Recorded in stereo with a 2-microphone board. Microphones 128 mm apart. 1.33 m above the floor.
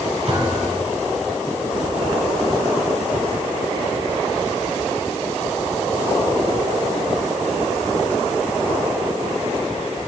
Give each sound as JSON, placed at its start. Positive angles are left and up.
{"t": 0.3, "sound": "a thud", "side_deg": -50, "distance_m": 8.5}